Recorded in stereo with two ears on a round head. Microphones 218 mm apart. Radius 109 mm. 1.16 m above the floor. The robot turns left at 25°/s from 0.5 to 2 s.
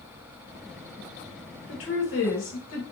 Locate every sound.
1.7 s a woman speaking: 50° left (ahead or behind), 1.0 m; by 2.8 s 55° left (ahead or behind), 1.0 m